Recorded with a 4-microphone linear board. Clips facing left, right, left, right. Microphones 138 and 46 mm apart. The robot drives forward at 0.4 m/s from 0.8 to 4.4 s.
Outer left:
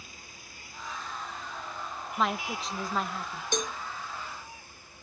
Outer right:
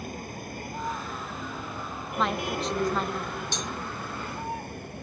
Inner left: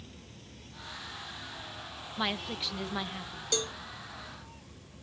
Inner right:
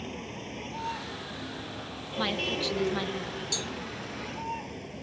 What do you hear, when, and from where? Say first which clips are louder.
0.0 s a vehicle: outer right 15 dB, inner right 13 dB; 55° right (ahead or behind); by 5.0 s 60° right (ahead or behind)
2.2 s a woman speaking: outer right 2 dB, inner right 4 dB; centre (ahead or behind)
3.5 s a cowbell: outer left 2 dB, inner left 2 dB; 50° left (ahead or behind)